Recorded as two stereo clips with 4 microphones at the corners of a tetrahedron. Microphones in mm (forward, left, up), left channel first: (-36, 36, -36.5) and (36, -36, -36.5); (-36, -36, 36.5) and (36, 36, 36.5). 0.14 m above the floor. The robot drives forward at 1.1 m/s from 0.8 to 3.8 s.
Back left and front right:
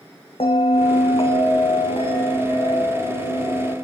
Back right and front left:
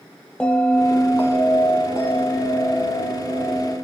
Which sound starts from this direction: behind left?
A bell, at 0.4 s.